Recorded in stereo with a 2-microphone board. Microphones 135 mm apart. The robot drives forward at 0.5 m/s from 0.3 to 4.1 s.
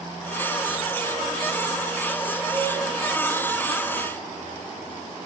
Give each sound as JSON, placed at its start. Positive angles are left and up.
{"t": 2.5, "sound": "a cowbell", "side_deg": -15, "distance_m": 3.5}